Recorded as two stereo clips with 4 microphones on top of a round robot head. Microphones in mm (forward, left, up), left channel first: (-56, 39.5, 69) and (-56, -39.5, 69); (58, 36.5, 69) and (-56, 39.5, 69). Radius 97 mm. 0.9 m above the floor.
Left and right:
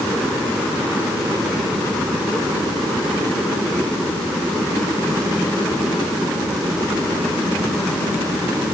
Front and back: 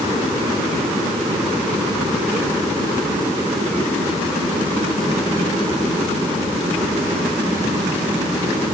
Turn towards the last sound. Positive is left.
No sound to turn to.